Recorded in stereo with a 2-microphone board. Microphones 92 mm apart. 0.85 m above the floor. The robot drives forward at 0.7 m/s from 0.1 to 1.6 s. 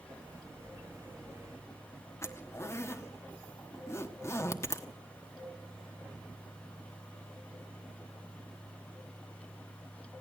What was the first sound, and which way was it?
A zipper, 30° left (ahead or behind).